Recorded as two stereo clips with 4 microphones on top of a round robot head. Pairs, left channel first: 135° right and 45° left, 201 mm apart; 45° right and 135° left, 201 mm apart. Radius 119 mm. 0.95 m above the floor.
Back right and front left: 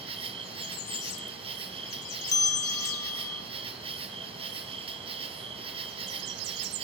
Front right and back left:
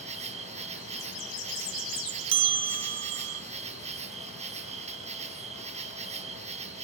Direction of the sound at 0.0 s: 95° left.